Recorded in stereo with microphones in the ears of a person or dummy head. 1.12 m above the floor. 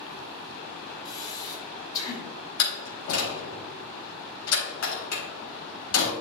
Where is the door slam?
80° left, 3.5 m.